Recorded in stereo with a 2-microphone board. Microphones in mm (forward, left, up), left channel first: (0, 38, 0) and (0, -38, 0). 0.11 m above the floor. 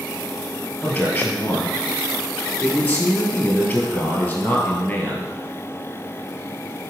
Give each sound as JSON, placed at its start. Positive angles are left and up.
{"t": 0.8, "sound": "a man speaking", "side_deg": 20, "distance_m": 2.5}